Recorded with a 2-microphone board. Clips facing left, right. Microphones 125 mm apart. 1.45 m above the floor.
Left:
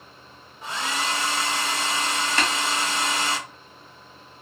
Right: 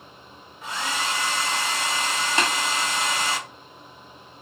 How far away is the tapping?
About 0.9 m.